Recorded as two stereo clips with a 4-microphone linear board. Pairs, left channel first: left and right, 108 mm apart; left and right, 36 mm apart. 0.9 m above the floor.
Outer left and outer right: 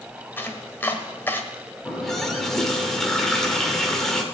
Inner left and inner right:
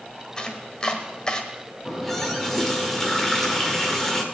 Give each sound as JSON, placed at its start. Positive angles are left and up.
{"t": 0.4, "sound": "chopping", "side_deg": 20, "distance_m": 1.5}
{"t": 1.9, "sound": "a running tap", "side_deg": 5, "distance_m": 1.9}